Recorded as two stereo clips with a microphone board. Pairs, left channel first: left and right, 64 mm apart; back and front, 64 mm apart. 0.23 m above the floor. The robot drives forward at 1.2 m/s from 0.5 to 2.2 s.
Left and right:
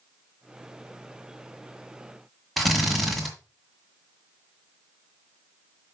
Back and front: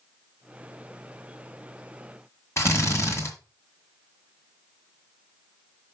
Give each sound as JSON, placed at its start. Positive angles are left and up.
{"t": 2.6, "sound": "a drill", "azimuth_deg": 175, "distance_m": 1.9}